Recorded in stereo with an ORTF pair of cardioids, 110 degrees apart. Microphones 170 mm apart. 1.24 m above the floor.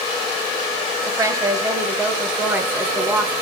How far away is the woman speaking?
About 4.5 m.